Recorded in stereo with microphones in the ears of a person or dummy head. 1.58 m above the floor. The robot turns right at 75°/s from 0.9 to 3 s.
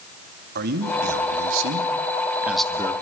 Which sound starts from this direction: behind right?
A man speaking, at 0.6 s.